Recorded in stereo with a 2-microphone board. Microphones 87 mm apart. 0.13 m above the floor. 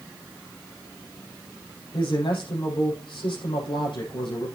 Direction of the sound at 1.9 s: 75° left (ahead or behind).